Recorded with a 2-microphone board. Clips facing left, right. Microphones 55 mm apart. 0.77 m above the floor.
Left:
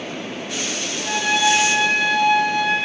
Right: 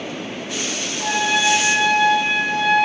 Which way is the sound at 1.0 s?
75° right (ahead or behind).